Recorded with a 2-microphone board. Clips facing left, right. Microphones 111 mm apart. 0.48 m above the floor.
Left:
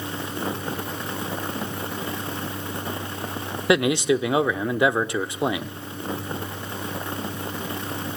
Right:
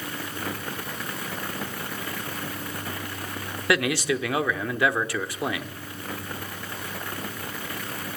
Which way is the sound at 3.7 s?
20° left (ahead or behind).